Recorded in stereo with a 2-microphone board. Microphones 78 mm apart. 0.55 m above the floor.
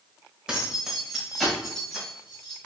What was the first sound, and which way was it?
Keys jangling, 10° right (ahead or behind).